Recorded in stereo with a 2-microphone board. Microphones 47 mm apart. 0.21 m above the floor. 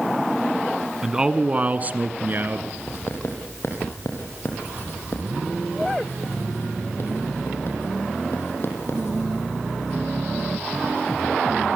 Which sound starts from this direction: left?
Writing, at 2.9 s.